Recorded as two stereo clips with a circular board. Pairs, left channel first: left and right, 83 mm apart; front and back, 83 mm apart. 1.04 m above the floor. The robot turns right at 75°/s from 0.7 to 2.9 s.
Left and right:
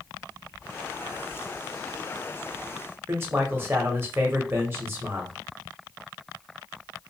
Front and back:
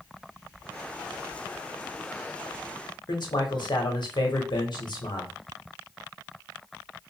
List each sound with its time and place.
3.1 s a man speaking: 30° right, 0.9 m